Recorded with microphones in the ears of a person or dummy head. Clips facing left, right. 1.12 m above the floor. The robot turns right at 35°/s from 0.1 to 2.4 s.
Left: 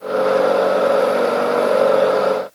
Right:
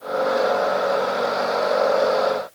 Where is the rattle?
I don't hear a rattle.